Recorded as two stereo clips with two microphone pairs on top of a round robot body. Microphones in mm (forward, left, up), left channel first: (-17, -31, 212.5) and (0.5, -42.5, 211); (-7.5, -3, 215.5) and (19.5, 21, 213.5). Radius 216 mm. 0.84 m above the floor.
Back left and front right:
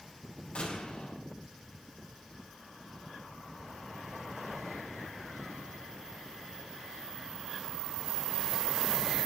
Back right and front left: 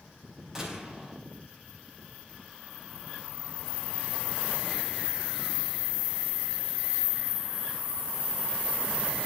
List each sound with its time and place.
0.6 s a gunshot: 120° left, 5 m